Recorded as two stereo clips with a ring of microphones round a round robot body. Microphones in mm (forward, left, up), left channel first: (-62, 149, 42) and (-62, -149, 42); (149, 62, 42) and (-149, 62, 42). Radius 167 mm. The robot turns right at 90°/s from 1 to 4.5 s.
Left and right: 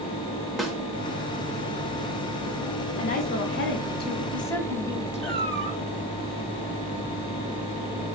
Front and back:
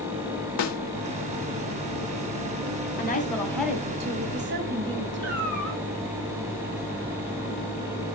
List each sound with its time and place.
0.6 s a snare drum: straight ahead, 0.7 m
3.0 s a woman speaking: 30° left, 1.5 m; by 5.4 s 165° left, 1.5 m
5.2 s a cat meowing: 85° right, 1.7 m